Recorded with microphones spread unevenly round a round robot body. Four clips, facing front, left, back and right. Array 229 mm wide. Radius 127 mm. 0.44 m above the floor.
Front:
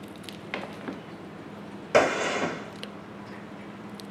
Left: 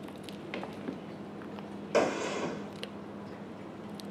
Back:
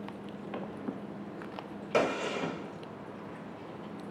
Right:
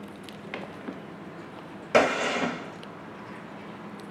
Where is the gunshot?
45° right, 0.6 m.